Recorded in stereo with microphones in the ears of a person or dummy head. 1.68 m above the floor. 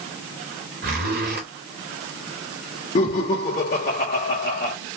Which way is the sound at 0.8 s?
50° right (ahead or behind).